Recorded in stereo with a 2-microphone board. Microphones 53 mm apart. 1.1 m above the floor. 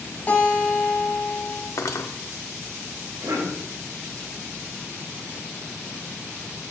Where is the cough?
90° right, 7.5 m.